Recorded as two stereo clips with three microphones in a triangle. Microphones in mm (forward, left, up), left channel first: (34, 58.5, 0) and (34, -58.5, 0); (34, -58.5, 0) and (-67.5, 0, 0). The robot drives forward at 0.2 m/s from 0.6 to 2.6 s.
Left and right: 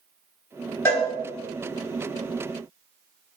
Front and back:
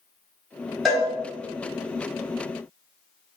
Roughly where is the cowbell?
Ahead left.